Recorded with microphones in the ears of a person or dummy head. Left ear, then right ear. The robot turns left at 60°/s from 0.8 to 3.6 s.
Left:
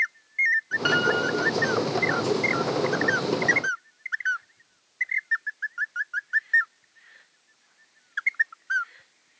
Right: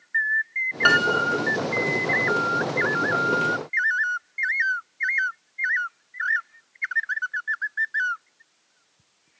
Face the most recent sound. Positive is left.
turn(degrees=45)